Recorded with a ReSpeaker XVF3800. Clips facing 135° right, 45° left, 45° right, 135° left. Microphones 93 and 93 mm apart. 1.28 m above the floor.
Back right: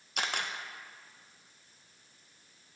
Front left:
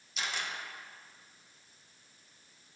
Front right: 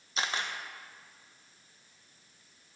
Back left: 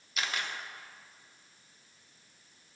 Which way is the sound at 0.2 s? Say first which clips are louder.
Back right 3 dB, front right 2 dB; 105° right.